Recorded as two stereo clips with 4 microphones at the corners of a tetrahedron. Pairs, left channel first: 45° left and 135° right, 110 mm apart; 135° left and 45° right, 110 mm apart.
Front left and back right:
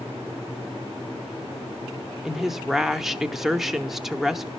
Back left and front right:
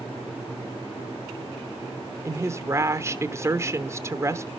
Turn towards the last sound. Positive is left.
turn(degrees=-50)